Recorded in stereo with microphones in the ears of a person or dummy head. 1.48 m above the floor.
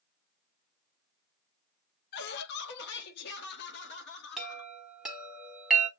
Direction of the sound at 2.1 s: 55° left (ahead or behind).